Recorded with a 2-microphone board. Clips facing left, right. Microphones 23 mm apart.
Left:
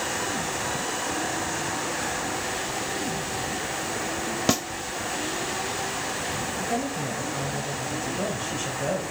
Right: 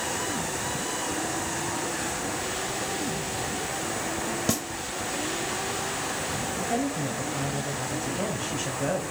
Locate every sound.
4.5 s a snare drum: 30° left (ahead or behind), 0.5 m
6.6 s a woman speaking: 5° left (ahead or behind), 1.5 m